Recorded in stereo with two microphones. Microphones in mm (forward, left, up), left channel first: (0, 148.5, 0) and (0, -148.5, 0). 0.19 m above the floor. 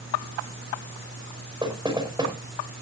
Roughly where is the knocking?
Centre.